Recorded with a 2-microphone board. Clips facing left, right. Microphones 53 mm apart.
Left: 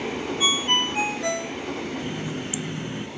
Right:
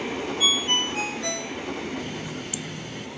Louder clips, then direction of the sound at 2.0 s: Left 3 dB; 25° left (ahead or behind).